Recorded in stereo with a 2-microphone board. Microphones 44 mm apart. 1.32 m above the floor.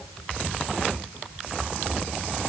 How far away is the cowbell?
No cowbell in this recording.